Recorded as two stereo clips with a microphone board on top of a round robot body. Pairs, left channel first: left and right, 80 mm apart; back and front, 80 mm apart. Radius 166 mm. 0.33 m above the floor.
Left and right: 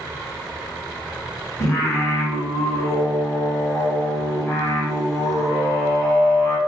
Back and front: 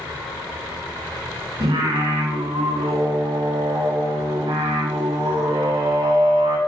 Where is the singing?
35° left, 0.6 m.